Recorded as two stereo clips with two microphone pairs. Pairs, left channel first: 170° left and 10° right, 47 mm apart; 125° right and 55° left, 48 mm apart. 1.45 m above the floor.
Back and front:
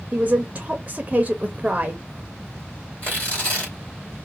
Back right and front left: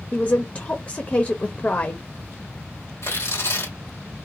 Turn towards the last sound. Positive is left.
turn(degrees=-135)